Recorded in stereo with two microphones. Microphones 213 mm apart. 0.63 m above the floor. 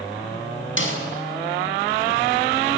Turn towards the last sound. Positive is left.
turn(degrees=65)  # may be behind; listen again after turning